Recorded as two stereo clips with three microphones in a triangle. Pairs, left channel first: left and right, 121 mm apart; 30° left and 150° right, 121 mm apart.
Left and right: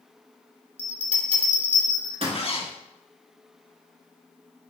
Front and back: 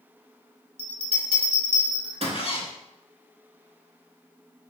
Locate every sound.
0.8 s a bell: 125° right, 0.9 m
2.3 s a zipper: 60° left, 0.7 m